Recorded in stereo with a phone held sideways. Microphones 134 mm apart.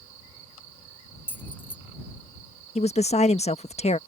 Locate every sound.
1.3 s keys jangling: 15° left (ahead or behind)
2.8 s a woman speaking: 55° left (ahead or behind)